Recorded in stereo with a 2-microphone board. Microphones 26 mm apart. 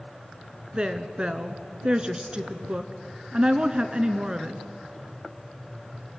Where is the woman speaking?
35° right (ahead or behind), 1.3 m.